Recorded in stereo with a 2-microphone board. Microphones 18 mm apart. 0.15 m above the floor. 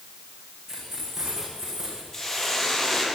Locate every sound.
0.7 s keys jangling: 20° right (ahead or behind), 8.5 m
2.1 s a hiss: 20° left (ahead or behind), 5.5 m